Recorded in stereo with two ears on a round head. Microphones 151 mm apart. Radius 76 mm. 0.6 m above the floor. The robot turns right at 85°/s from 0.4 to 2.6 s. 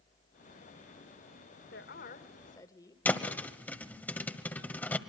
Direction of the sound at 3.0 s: 10° left (ahead or behind).